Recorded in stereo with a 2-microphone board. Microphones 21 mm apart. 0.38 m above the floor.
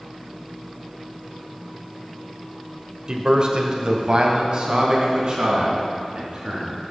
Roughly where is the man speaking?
Right.